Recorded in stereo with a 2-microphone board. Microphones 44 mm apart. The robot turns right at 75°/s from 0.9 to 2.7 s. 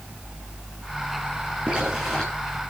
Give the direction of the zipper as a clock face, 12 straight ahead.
1 o'clock.